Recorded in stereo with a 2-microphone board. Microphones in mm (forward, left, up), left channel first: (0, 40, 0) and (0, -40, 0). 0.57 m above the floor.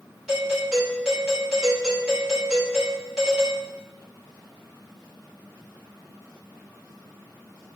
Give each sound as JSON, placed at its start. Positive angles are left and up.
{"t": 0.3, "sound": "a doorbell", "side_deg": -10, "distance_m": 1.7}